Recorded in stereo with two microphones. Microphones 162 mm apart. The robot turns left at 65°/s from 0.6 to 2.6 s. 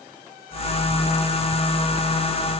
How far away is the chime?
I don't hear a chime.